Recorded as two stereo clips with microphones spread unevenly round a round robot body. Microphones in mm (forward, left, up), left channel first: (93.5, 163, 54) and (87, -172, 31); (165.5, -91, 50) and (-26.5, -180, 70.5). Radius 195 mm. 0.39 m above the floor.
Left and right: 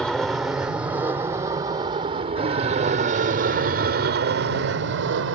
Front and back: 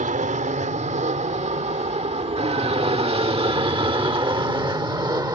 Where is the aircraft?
Straight behind; by 5.4 s 90° right.